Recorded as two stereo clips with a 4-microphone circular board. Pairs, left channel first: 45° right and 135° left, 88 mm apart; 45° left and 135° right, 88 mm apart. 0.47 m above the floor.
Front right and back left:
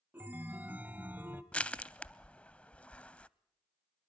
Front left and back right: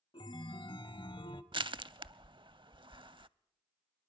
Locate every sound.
0.1 s a chime: 65° left, 1.0 m
1.5 s crushing: 120° right, 0.6 m